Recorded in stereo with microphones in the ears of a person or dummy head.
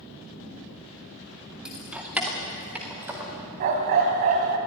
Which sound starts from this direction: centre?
Keys jangling, at 1.6 s.